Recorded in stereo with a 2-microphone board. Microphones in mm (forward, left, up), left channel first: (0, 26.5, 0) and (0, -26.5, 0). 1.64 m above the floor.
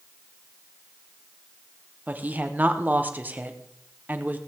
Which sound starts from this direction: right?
A woman speaking, at 2.1 s.